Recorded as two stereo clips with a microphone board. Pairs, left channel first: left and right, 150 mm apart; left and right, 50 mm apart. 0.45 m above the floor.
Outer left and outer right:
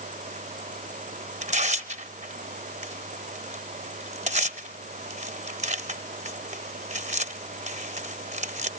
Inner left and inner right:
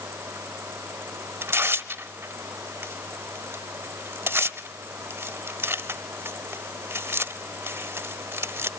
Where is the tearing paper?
50° right (ahead or behind), 0.9 m.